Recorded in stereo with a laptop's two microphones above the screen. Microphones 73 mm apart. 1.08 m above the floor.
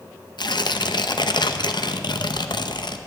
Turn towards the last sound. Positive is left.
turn(degrees=80)